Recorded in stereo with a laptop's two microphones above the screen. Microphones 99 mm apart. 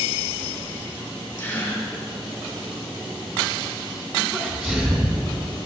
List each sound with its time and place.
1.4 s a gasp: 20° left (ahead or behind), 3.5 m
4.3 s a sneeze: 15° right (ahead or behind), 4 m